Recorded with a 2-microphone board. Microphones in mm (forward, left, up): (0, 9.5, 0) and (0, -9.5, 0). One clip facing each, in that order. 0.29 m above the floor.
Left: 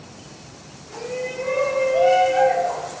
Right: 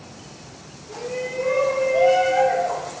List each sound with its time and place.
0.9 s a shout: 25° left (ahead or behind), 1.5 m; by 2.9 s 5° right (ahead or behind), 1.4 m